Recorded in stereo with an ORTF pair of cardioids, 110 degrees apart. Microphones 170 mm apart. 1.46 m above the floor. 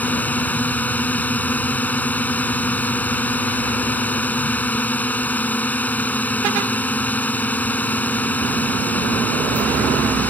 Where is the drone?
10° left.